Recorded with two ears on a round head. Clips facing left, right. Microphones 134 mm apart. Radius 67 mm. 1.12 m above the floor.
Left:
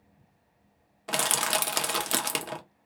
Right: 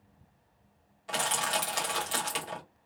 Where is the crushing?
70° left (ahead or behind), 0.7 m.